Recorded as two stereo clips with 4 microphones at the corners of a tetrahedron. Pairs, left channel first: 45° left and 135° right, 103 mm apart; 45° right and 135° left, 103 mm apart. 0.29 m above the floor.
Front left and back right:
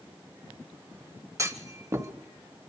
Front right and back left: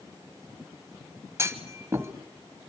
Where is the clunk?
Straight behind, 1.0 m.